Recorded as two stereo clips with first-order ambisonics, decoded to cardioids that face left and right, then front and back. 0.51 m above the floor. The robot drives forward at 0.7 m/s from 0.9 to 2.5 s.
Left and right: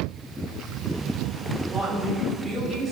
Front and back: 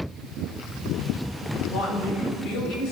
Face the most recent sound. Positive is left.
turn(degrees=0)